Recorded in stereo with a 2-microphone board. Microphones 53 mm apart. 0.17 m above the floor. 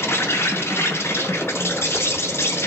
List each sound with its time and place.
0.0 s an insect: 50° left (ahead or behind), 0.8 m